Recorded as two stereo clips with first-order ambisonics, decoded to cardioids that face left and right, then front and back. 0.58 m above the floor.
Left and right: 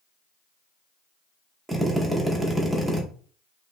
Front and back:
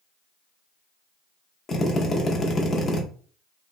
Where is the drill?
20° right, 0.5 m.